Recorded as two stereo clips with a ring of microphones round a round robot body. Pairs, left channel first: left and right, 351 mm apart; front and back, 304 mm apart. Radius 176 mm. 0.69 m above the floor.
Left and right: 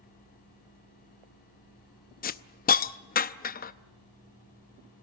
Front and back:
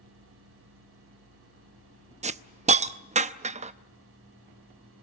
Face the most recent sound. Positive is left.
turn(degrees=130)